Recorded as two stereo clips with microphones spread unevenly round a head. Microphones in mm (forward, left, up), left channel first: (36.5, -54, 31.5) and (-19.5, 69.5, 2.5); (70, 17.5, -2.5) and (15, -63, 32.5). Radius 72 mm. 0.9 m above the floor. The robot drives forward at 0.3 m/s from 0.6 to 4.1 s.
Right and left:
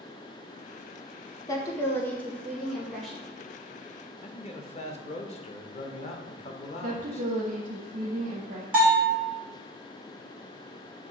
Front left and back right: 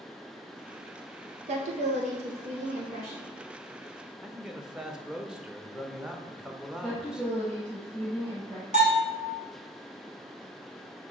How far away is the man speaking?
About 0.7 m.